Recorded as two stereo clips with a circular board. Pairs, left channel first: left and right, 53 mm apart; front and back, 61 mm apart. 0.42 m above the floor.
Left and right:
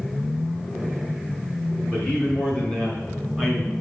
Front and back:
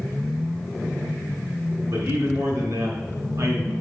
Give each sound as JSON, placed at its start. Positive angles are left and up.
{"t": 1.9, "sound": "a man speaking", "azimuth_deg": 160, "distance_m": 4.0}